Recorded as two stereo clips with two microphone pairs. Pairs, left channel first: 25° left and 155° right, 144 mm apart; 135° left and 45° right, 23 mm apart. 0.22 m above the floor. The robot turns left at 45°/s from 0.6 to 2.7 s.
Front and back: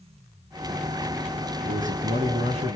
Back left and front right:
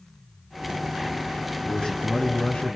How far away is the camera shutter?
I don't hear a camera shutter.